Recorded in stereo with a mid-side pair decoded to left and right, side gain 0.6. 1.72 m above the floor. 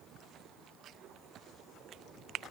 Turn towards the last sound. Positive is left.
No sound to turn to.